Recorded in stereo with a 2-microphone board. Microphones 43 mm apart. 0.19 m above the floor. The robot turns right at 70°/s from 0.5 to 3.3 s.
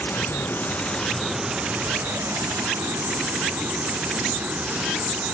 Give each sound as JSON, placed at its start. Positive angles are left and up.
{"t": 0.0, "sound": "running water", "azimuth_deg": 130}